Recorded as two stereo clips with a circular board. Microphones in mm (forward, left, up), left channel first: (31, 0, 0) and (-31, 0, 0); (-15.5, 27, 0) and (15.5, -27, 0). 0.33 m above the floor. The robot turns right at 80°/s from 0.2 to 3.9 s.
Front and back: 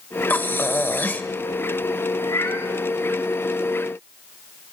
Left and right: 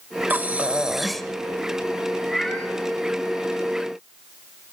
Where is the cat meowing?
20° left, 3 m; by 2.7 s 60° left, 3 m.